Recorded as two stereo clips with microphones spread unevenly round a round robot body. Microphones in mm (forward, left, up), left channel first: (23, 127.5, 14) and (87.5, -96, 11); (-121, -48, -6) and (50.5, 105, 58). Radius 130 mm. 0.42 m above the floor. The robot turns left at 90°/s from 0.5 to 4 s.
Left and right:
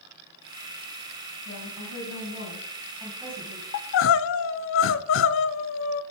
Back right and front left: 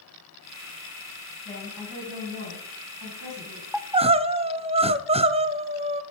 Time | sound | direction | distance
1.4 | a woman speaking | 160° left | 4.5 m
3.7 | crying | 140° left | 0.7 m